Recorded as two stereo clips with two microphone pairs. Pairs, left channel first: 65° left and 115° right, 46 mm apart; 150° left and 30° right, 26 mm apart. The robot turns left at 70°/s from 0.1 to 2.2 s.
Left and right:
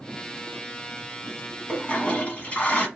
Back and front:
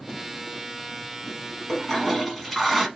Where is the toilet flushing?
100° left, 1.1 m; by 2.9 s 60° left, 1.1 m.